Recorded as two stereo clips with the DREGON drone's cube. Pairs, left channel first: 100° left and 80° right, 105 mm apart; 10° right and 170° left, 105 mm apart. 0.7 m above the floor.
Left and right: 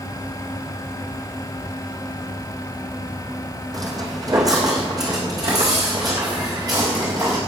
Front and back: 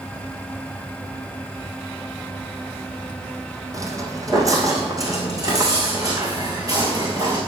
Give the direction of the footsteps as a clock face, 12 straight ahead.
4 o'clock.